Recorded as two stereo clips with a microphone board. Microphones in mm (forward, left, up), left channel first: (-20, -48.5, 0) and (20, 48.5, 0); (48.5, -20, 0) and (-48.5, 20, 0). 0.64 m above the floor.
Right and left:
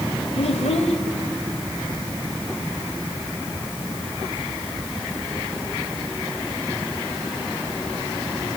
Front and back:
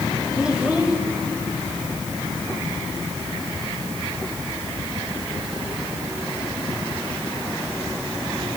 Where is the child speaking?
120° right, 2.0 m.